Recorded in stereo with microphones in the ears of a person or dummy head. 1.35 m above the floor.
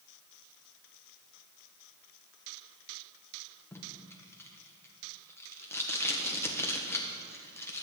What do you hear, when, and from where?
3.7 s tape being pulled: 15° left (ahead or behind), 1.3 m